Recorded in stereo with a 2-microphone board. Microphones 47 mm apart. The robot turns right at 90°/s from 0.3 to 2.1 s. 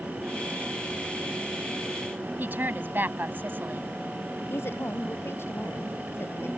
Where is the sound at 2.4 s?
50° right (ahead or behind).